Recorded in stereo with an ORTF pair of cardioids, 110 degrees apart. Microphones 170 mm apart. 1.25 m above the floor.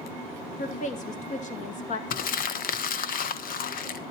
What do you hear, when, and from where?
0.6 s a woman speaking: 50° left, 2 m
2.1 s crumpling: 60° left, 1.1 m